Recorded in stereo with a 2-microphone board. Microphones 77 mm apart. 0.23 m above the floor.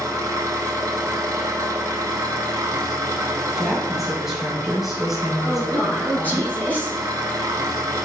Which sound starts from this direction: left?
A woman speaking, at 5.4 s.